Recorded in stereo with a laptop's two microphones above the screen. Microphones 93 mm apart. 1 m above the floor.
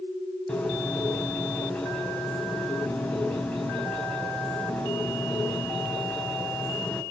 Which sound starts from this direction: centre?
A bird, at 0.5 s.